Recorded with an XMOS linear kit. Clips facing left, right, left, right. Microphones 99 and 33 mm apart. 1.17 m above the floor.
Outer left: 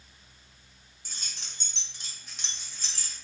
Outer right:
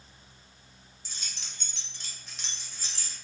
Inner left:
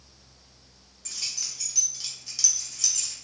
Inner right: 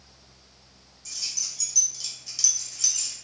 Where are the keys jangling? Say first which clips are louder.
Even, even; 55° left (ahead or behind), 0.7 m; by 3.1 s 15° right (ahead or behind), 1.0 m.